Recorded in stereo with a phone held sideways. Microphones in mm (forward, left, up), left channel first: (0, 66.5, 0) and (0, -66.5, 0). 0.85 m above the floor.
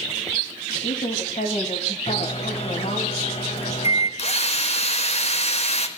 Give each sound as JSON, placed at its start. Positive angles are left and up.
{"t": 0.8, "sound": "a woman speaking", "side_deg": 75, "distance_m": 5.5}
{"t": 2.1, "sound": "a microwave", "side_deg": 50, "distance_m": 4.0}
{"t": 4.2, "sound": "a drill", "side_deg": 55, "distance_m": 4.5}